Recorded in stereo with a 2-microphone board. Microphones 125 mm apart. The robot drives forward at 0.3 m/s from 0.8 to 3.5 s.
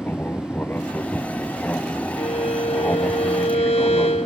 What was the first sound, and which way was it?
An aircraft, 15° left (ahead or behind).